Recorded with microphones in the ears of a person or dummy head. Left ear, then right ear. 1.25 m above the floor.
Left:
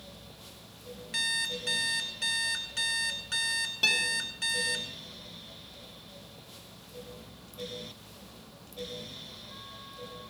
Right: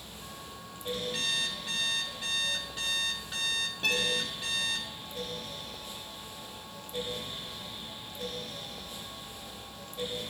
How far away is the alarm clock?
About 2 m.